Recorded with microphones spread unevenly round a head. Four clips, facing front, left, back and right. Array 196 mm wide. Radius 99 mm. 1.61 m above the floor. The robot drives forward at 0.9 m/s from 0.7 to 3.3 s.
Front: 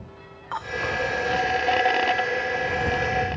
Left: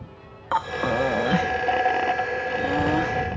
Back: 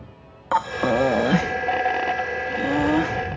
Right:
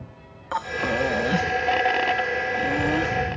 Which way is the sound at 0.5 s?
175° left.